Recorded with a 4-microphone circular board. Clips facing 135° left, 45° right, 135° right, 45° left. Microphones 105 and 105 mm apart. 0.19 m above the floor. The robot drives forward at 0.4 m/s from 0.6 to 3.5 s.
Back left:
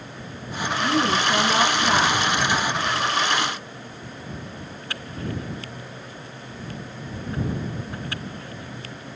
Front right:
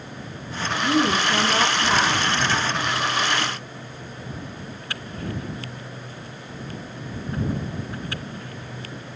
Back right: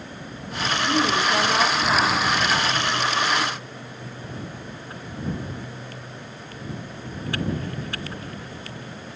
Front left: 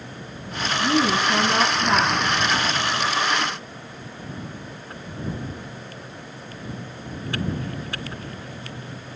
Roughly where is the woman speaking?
Ahead left.